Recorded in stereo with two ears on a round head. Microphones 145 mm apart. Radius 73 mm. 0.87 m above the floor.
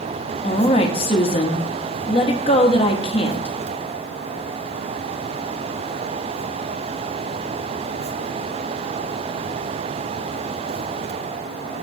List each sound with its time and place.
0.4 s a woman speaking: 35° left (ahead or behind), 1.1 m